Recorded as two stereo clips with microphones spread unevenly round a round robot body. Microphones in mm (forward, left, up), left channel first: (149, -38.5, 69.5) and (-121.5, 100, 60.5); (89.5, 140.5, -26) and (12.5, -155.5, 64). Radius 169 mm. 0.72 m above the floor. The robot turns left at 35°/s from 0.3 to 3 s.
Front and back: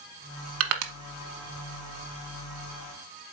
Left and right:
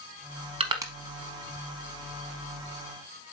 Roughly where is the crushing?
Behind.